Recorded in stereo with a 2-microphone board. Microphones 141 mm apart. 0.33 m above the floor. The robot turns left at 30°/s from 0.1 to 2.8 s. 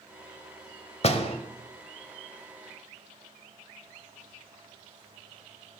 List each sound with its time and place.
1.0 s a door slam: 45° left (ahead or behind), 1.0 m